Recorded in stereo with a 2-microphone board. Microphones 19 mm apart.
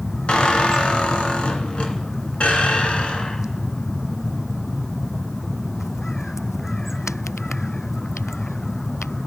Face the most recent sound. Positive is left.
turn(degrees=70)  # may be behind; listen again after turning